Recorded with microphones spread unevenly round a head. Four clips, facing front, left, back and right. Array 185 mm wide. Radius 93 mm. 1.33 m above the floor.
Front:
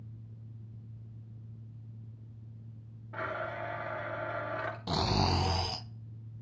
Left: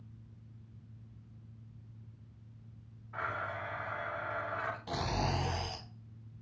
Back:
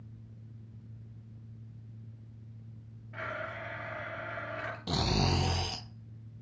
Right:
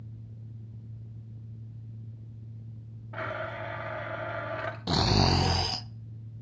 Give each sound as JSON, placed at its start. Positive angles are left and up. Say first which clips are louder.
{"t": 3.1, "sound": "a blender", "louder": "right 3 dB, front 3 dB", "azimuth_deg": -60, "distance_m": 3.0}
{"t": 4.9, "sound": "snoring", "louder": "right 10 dB, front 1 dB", "azimuth_deg": -95, "distance_m": 1.1}